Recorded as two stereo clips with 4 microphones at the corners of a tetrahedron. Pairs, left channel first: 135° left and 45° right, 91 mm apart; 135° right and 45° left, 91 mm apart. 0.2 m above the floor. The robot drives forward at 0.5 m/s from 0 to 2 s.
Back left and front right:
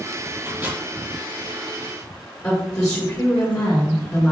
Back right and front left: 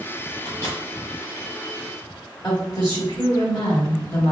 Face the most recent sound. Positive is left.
turn(degrees=175)